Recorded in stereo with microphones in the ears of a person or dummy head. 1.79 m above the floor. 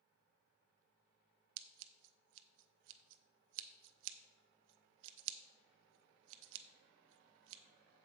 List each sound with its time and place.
1.6 s scissors: 70° right (ahead or behind), 0.6 m